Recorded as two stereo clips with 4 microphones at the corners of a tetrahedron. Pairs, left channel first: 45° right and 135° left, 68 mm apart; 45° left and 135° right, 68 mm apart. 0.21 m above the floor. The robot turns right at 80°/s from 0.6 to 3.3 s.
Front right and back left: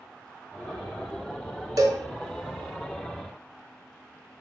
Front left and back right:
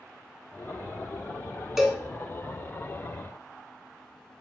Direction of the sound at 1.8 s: 140° left.